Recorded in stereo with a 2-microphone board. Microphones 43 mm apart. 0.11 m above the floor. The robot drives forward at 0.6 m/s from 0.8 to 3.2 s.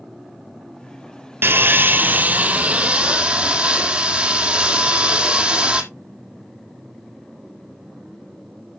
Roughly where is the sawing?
Right.